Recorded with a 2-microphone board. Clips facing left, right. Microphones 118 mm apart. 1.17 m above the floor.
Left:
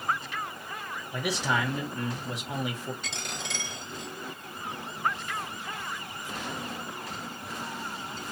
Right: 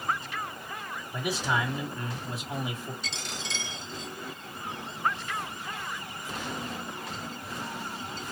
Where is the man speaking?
85° left, 2.0 m.